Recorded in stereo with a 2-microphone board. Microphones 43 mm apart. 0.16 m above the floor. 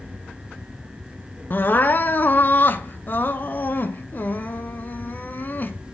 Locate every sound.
1.5 s crying: 50° left (ahead or behind), 0.6 m